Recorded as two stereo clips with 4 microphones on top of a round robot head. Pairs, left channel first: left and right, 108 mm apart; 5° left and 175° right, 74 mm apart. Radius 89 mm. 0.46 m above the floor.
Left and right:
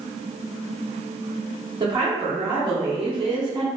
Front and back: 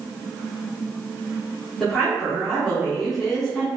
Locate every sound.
1.8 s a woman speaking: 85° right, 0.9 m